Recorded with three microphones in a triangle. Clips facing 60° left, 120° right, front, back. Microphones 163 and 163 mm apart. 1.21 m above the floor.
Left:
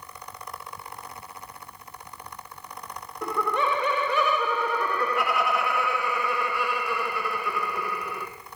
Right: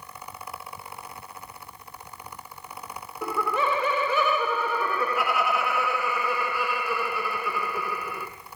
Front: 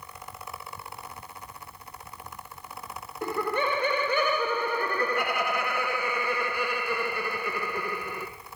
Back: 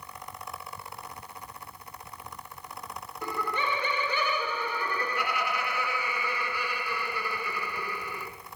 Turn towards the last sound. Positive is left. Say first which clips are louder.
# even, front 5 dB
turn(degrees=-30)